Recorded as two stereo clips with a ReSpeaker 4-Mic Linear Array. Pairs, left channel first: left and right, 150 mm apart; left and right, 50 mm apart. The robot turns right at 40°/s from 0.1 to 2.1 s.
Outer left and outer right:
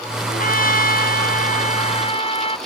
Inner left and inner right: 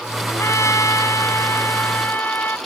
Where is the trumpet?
65° left; by 2.6 s 140° left.